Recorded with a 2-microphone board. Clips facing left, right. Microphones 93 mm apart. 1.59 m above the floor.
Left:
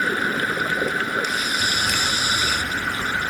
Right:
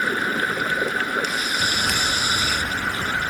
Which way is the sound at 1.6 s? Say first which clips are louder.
Even; 65° right (ahead or behind).